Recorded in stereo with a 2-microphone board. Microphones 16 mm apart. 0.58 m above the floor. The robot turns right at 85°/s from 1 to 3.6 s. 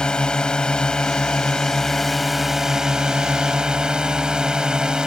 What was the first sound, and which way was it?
A drone, 70° left.